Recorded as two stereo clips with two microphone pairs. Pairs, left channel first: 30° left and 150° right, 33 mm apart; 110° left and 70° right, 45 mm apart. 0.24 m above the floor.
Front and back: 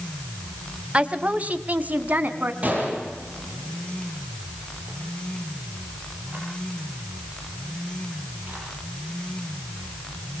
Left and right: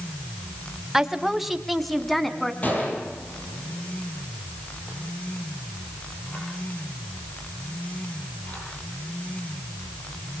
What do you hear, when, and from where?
0.9 s a woman speaking: 140° right, 1.3 m; by 2.5 s 165° right, 2 m
2.6 s a gunshot: 165° left, 8.5 m